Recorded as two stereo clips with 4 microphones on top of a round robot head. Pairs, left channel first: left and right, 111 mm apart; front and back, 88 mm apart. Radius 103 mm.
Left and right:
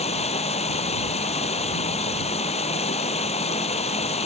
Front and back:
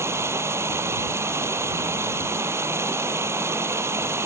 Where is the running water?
120° left.